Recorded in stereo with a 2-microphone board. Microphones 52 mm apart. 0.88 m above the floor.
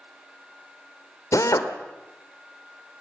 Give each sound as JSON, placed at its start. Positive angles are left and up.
{"t": 1.3, "sound": "a drill", "side_deg": 85, "distance_m": 1.8}